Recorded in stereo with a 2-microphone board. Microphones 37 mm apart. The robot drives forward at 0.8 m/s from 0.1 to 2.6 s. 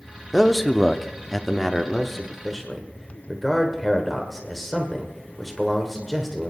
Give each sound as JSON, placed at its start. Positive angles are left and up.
{"t": 0.3, "sound": "a man speaking", "side_deg": 5, "distance_m": 0.9}